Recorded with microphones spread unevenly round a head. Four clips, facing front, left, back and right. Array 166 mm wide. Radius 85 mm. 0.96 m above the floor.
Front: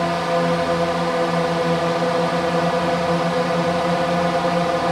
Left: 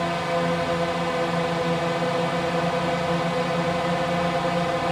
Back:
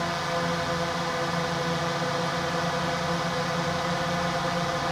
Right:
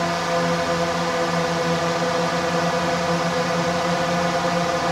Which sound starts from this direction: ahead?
A drone, at 0.0 s.